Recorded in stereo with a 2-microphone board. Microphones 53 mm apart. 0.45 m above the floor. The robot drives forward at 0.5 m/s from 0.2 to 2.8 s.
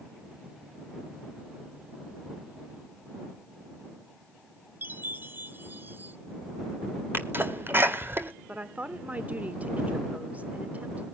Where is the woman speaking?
30° right (ahead or behind), 1.0 m.